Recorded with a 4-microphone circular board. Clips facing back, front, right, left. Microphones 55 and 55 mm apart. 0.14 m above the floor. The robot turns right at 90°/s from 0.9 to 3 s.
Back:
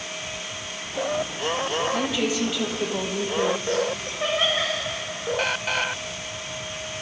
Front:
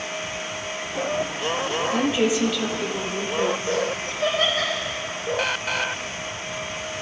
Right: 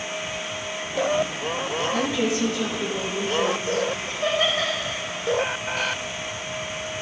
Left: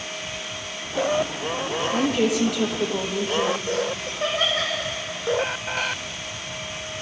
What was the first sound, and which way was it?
A woman speaking, 40° left.